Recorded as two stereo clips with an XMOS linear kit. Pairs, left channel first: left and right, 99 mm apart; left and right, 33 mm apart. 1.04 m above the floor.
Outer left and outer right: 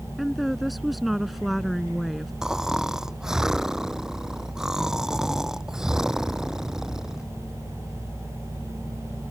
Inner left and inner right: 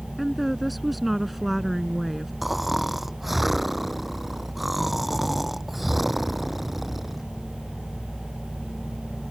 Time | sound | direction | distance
0.2 | a woman speaking | centre (ahead or behind) | ?
2.4 | snoring | 5° right (ahead or behind) | ?